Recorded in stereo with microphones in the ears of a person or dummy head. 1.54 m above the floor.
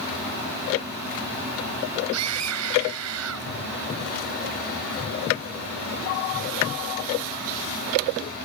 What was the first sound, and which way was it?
A scream, 85° right.